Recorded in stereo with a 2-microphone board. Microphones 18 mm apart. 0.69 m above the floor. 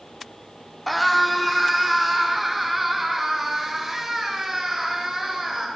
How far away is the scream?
About 1.8 m.